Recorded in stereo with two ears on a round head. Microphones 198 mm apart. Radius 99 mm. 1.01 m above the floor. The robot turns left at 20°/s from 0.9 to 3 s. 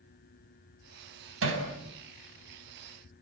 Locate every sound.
1.4 s hammering: 65° right (ahead or behind), 6 m; by 1.6 s 60° right (ahead or behind), 6 m